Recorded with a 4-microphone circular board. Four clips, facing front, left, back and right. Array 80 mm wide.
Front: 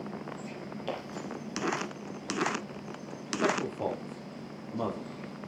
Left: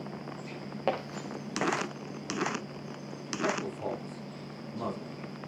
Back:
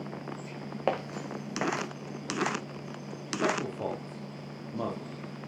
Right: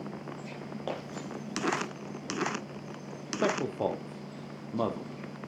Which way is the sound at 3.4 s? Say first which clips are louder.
Right 4 dB, front 1 dB; 90° right.